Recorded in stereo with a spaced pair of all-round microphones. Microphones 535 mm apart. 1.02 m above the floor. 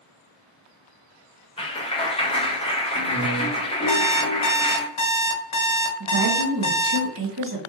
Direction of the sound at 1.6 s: 10° left (ahead or behind).